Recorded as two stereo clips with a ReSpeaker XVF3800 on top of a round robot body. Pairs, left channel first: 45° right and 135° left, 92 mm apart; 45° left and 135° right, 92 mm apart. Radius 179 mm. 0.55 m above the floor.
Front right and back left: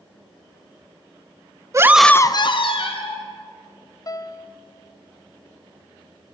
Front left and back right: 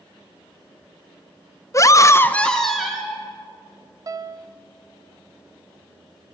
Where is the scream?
90° left, 0.8 m; by 3.2 s 50° right, 1.8 m.